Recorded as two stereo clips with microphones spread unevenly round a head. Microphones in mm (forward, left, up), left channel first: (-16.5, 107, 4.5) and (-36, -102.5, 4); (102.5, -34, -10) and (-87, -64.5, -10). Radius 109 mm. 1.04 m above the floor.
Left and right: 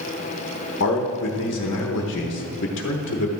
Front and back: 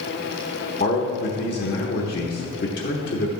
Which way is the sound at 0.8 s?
55° left.